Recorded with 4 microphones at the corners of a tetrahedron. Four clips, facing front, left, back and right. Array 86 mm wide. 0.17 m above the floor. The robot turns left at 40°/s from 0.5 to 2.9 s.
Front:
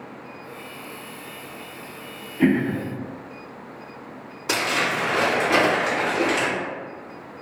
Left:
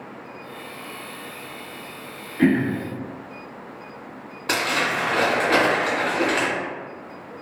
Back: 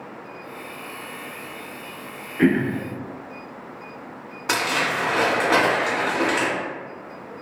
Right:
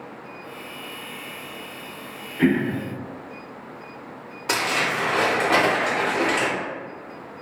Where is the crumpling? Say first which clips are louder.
Left 1 dB, even; 170° left, 1.9 m.